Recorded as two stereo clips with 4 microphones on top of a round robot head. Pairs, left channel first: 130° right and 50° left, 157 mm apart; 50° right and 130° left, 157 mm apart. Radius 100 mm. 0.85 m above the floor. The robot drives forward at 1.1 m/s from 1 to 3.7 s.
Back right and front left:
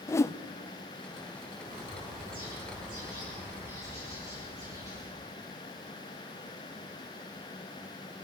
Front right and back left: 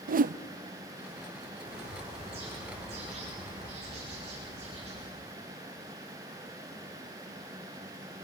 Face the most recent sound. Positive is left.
turn(degrees=115)